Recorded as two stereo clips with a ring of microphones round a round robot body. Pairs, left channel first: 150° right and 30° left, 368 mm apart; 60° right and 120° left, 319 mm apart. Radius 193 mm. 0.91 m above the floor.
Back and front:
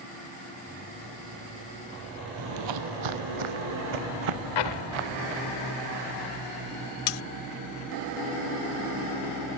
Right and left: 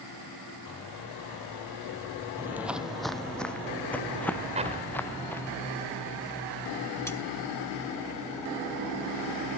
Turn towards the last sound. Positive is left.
turn(degrees=-145)